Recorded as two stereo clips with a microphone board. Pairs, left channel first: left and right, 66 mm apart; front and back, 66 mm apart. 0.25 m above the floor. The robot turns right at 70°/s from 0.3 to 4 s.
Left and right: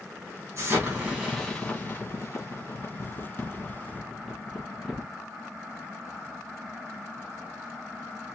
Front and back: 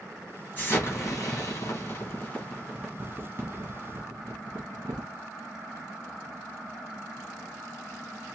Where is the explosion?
65° right, 2.5 m; by 5.1 s straight behind, 2.5 m.